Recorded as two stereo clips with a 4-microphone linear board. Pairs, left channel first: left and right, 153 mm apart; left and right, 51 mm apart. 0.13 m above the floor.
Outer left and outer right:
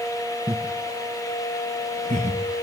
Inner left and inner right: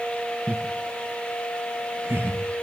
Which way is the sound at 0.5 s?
25° right (ahead or behind).